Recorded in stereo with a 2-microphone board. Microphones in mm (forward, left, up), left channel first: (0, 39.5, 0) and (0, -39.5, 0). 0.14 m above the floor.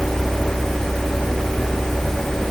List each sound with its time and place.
Only background noise.